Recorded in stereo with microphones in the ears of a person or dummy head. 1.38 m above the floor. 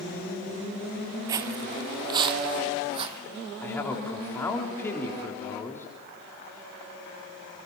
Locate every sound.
1.3 s footsteps: 20° right (ahead or behind), 1.6 m; by 3.2 s 30° right (ahead or behind), 3 m
3.6 s a man speaking: 10° left (ahead or behind), 3.5 m